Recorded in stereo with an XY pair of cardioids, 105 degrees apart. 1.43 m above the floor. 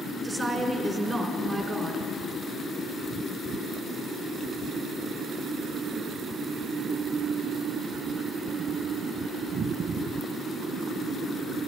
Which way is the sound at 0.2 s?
25° right.